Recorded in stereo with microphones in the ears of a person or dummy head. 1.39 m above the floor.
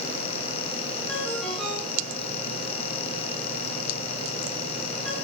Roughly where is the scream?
I don't hear a scream.